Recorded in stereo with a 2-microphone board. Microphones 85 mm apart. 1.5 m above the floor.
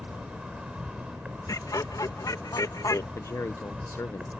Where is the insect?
10° right (ahead or behind).